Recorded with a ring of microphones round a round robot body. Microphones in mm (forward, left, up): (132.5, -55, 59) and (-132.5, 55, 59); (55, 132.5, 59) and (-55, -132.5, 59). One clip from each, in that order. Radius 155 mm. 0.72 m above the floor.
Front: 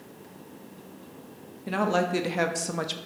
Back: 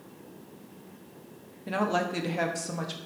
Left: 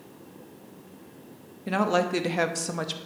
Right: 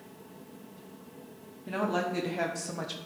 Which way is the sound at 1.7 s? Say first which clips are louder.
Front 3 dB, left 6 dB; 65° left.